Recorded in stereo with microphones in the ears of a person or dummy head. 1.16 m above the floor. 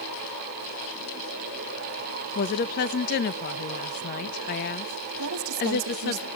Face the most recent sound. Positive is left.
turn(degrees=-80)